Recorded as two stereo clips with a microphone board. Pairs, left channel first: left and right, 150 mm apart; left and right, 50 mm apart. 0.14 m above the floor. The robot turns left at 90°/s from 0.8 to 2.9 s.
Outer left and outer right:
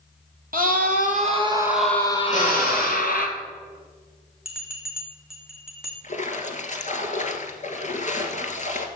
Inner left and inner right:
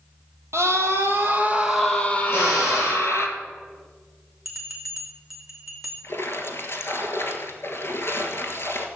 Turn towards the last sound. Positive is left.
turn(degrees=55)  # may be behind; listen again after turning